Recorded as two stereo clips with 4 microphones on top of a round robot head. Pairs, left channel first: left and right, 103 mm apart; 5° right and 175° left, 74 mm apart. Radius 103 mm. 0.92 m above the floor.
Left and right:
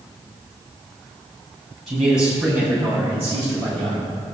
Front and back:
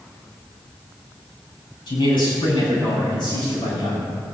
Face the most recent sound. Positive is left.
turn(degrees=-30)